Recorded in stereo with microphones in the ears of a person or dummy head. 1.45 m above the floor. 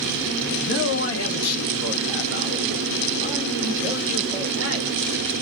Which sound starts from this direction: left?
A man speaking, at 0.6 s.